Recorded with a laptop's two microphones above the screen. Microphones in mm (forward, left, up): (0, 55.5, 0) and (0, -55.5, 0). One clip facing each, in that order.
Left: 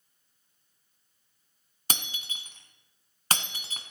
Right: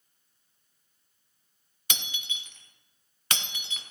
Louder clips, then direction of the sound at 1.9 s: Left 2 dB; 35° left (ahead or behind).